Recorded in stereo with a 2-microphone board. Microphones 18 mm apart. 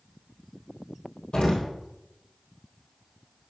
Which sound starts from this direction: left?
An explosion, at 1.3 s.